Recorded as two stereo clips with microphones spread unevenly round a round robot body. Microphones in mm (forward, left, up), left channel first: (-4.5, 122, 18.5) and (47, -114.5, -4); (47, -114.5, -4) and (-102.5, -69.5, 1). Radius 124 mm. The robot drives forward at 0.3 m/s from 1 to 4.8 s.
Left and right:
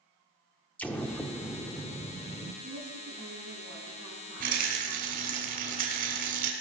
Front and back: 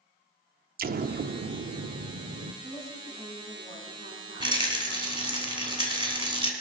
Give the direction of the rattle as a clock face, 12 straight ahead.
5 o'clock.